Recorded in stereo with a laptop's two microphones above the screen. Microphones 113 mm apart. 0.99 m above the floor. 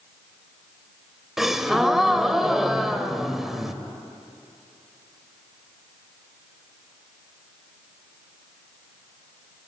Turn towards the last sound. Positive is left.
turn(degrees=-5)  # may be behind; listen again after turning